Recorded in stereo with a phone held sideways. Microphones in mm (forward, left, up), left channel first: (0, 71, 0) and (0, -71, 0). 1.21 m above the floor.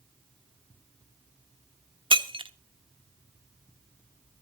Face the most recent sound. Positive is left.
turn(degrees=-35)  # may be behind; listen again after turning